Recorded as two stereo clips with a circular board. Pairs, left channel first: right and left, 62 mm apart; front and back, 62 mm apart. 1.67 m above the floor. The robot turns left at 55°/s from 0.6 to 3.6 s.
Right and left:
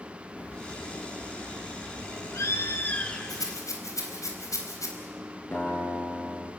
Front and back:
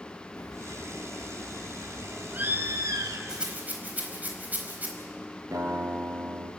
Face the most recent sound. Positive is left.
turn(degrees=-145)